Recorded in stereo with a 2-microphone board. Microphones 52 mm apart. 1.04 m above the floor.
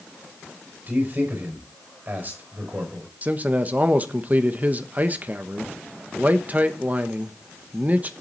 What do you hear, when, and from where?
0.9 s a man speaking: 40° right (ahead or behind), 5 m
3.2 s a man speaking: 30° right (ahead or behind), 1.0 m